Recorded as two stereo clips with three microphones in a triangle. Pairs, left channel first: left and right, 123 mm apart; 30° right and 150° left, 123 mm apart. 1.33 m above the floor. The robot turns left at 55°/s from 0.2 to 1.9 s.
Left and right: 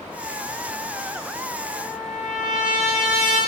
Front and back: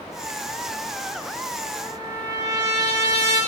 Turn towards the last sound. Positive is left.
turn(degrees=-15)